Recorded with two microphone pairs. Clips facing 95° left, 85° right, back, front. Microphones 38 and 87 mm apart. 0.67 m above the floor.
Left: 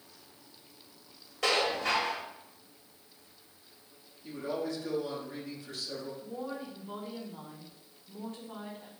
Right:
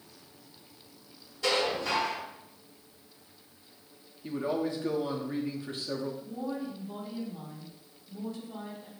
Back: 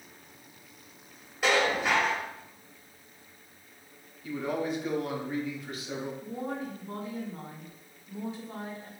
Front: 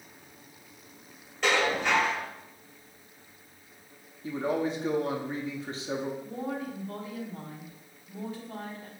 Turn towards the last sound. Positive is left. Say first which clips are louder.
# right 3 dB, front 1 dB
turn(degrees=115)